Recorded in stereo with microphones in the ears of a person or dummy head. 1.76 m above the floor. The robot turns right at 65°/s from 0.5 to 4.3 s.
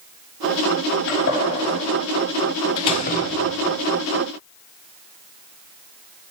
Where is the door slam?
25° left, 1.5 m; by 3.7 s 90° left, 1.5 m.